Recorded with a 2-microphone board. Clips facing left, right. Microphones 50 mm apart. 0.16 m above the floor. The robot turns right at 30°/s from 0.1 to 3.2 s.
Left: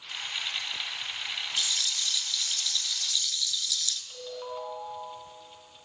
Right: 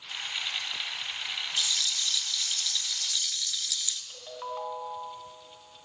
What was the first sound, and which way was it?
A rattle, 160° left.